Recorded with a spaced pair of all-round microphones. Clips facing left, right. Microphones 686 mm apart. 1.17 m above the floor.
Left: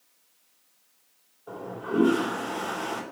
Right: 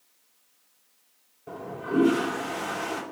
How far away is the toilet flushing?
About 2 m.